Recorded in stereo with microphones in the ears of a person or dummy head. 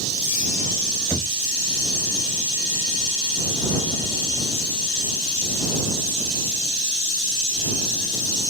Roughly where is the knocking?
Centre.